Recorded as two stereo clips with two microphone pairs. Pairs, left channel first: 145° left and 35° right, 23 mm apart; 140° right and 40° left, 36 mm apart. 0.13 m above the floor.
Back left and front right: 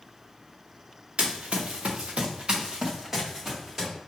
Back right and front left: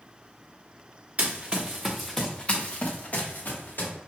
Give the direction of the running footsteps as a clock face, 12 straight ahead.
1 o'clock.